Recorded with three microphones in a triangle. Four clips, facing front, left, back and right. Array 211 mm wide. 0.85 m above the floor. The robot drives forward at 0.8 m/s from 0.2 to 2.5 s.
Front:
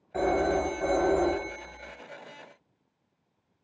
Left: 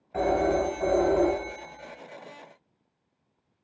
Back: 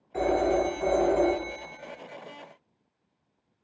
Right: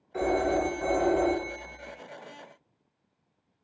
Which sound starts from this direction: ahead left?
A phone ringing, at 0.1 s.